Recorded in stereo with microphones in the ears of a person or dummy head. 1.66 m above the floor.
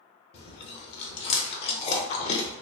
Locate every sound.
0.3 s chewing: 35° left (ahead or behind), 0.6 m